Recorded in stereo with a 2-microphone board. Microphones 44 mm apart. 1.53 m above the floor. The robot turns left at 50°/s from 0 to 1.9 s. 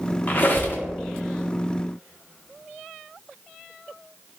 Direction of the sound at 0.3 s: 40° left (ahead or behind).